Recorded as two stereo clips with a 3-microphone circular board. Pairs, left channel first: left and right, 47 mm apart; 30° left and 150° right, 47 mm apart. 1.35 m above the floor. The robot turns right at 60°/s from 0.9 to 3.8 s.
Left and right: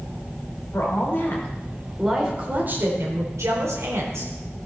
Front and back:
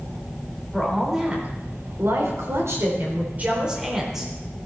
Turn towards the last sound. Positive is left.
turn(degrees=-70)